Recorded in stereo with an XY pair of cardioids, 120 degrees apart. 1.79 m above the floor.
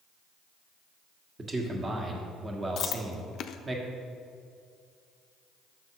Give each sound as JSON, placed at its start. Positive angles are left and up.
{"t": 1.4, "sound": "a man speaking", "azimuth_deg": -25, "distance_m": 1.4}
{"t": 2.8, "sound": "chewing", "azimuth_deg": 55, "distance_m": 0.5}